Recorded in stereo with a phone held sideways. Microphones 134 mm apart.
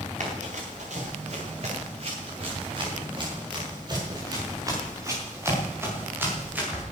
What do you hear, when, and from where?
0.2 s running footsteps: 60° right (ahead or behind), 8 m; by 6.8 s 10° right (ahead or behind), 9.5 m